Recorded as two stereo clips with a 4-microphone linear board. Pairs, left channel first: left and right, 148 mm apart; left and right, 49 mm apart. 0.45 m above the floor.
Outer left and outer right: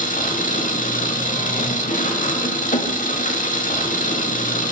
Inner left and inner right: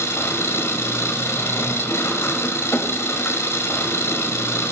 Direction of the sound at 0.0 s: 65° left (ahead or behind).